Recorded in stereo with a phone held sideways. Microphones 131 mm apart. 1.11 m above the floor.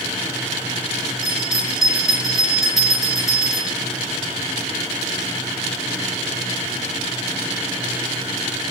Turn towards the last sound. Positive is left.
turn(degrees=0)  # may be behind; listen again after turning